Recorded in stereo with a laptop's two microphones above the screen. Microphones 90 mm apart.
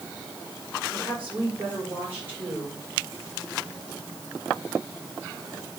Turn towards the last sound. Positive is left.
turn(degrees=-20)  # may be behind; listen again after turning